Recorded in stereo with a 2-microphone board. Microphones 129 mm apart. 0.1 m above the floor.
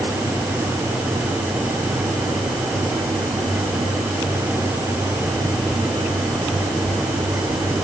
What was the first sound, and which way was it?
Only background noise.